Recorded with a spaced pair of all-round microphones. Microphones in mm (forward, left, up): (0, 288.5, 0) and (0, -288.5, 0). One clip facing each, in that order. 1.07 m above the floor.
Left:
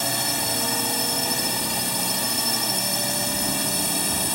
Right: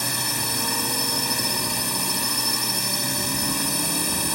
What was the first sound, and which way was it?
A drone, 10° left (ahead or behind).